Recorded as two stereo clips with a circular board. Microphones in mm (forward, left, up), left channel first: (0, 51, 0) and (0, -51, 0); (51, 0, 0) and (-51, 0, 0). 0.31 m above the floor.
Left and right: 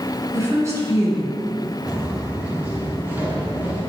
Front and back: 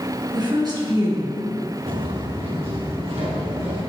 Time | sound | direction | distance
0.3 | a woman speaking | 145° right | 3 m
1.9 | footsteps | 165° right | 1.8 m